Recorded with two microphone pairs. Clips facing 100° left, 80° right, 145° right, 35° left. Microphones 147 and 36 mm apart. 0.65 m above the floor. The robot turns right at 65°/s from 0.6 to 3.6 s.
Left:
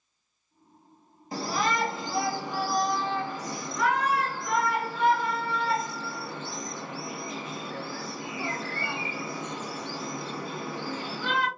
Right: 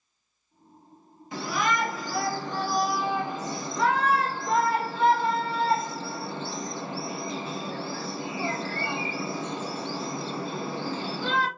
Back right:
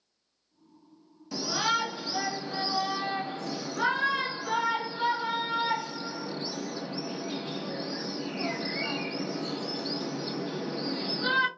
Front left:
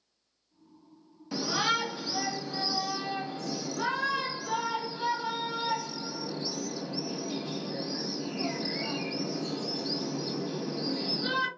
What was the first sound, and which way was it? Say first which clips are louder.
A shout: even, even; 95° left.